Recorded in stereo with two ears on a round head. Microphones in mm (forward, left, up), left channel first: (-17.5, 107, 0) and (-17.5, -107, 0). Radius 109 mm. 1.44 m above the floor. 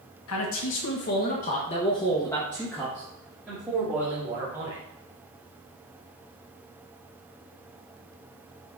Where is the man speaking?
60° left (ahead or behind), 1.6 m; by 4.8 s 20° right (ahead or behind), 3 m.